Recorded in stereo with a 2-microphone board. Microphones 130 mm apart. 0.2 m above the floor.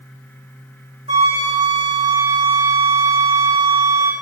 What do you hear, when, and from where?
1.1 s a flute: 55° right (ahead or behind), 5 m